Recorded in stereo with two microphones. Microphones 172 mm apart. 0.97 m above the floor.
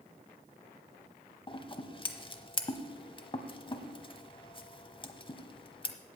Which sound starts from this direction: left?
Scissors, at 1.5 s.